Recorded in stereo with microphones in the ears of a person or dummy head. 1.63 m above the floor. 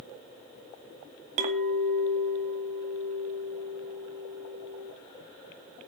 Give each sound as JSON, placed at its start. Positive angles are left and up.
{"t": 1.4, "sound": "a clink", "side_deg": -45, "distance_m": 1.3}